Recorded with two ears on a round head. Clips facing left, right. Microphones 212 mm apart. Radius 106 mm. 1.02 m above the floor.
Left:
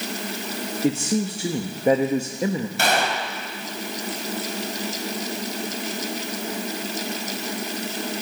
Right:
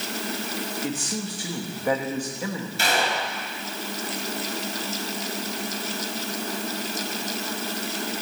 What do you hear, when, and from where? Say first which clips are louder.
0.8 s a man speaking: left 12 dB; 20° left (ahead or behind), 1.0 m
2.8 s a gunshot: right 1 dB; 45° left (ahead or behind), 2 m